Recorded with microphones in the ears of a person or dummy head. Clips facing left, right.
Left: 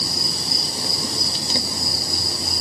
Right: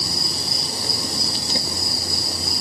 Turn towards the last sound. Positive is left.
No sound to turn to.